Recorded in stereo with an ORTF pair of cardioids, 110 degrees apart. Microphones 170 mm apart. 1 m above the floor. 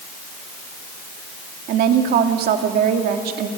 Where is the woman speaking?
70° right, 2 m.